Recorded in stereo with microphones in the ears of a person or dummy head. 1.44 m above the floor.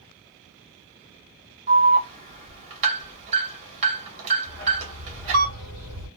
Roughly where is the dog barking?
Centre.